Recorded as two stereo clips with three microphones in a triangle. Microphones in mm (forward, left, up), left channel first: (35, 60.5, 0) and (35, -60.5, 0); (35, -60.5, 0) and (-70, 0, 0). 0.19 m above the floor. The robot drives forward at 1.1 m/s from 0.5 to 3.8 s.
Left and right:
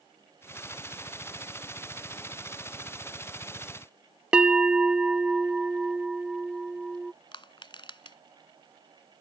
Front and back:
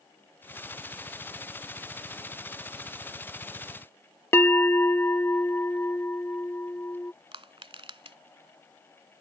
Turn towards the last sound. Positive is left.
turn(degrees=125)